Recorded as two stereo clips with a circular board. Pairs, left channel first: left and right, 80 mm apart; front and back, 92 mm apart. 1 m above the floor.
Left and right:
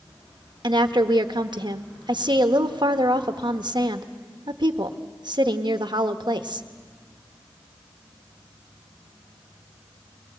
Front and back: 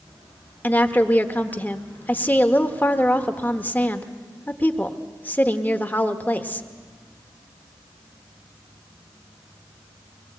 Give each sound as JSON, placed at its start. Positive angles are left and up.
{"t": 0.6, "sound": "a woman speaking", "azimuth_deg": -70, "distance_m": 1.2}